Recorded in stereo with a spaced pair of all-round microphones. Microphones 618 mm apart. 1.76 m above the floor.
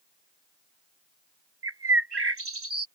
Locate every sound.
1.6 s a bird: 40° right (ahead or behind)